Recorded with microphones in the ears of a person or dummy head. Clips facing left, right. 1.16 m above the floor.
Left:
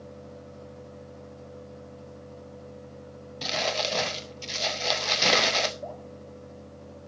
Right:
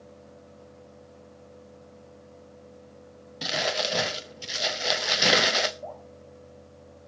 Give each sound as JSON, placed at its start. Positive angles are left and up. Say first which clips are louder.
{"t": 3.4, "sound": "crumpling", "louder": "even", "side_deg": -15, "distance_m": 0.5}
{"t": 5.8, "sound": "dripping", "louder": "left 1 dB", "side_deg": 30, "distance_m": 4.5}